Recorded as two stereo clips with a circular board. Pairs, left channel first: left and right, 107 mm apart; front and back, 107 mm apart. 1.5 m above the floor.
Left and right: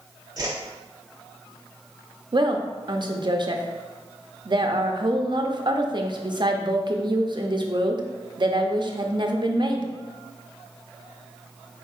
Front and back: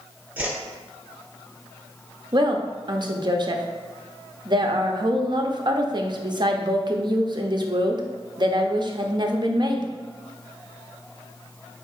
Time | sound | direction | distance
0.4 | a whoosh | 115° right | 0.8 m
2.3 | a woman speaking | 135° right | 0.5 m